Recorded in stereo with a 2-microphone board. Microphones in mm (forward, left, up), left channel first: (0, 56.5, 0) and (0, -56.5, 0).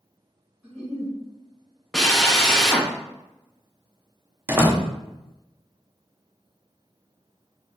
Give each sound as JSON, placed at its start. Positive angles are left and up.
{"t": 0.6, "sound": "a giggle", "side_deg": -5, "distance_m": 1.6}
{"t": 1.9, "sound": "a drill", "side_deg": 5, "distance_m": 0.5}
{"t": 4.5, "sound": "a door slam", "side_deg": -25, "distance_m": 0.6}